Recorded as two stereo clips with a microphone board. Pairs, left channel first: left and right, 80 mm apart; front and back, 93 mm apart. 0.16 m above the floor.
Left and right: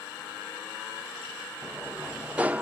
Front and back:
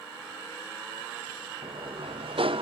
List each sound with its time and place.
1.6 s a sliding door: 165° right